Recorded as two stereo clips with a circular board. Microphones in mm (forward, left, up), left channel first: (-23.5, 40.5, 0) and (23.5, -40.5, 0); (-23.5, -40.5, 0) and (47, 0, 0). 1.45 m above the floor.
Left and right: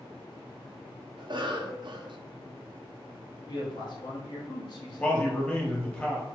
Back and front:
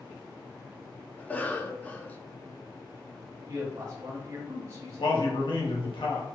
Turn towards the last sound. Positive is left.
turn(degrees=-160)